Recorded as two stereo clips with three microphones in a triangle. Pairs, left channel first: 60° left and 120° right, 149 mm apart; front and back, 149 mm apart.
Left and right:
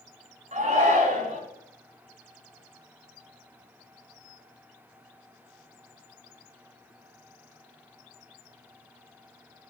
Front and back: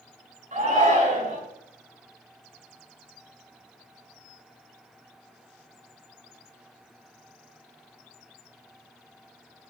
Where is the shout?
150° right, 5 m.